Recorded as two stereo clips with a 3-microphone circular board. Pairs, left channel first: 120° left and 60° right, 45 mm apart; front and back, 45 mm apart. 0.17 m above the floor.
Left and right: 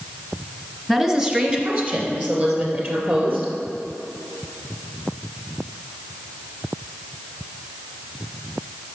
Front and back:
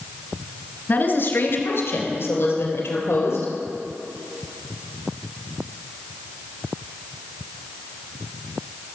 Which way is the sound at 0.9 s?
15° left.